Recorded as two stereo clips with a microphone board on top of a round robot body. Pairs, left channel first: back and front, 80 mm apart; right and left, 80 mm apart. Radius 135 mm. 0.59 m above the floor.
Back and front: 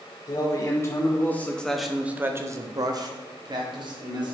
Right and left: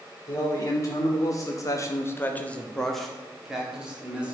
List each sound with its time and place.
0.3 s a man speaking: 135° right, 2.5 m; by 4.3 s 15° left, 3 m